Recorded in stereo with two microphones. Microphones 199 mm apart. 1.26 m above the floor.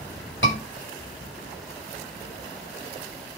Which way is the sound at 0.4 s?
80° left.